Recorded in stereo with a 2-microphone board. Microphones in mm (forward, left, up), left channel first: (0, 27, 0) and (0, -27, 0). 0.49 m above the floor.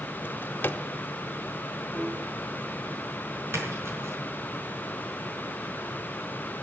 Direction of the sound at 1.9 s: 45° left (ahead or behind).